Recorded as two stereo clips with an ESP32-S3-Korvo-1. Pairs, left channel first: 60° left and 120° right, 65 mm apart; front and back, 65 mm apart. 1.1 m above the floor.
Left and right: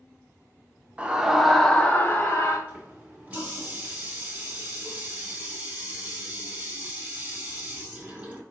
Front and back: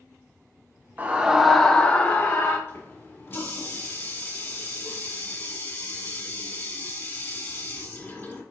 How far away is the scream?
About 0.6 m.